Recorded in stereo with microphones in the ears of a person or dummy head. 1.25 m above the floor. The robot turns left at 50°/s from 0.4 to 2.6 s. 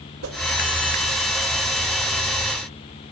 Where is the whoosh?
85° right, 1.7 m.